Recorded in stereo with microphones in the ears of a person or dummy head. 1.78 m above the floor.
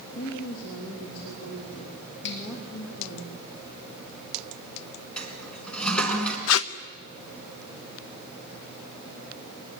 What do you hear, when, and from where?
0.1 s a woman speaking: 85° left, 4 m
2.2 s a finger snap: 65° left (ahead or behind), 4 m
5.2 s a toilet flushing: 5° left (ahead or behind), 4 m
6.5 s tape being pulled: 80° left, 0.8 m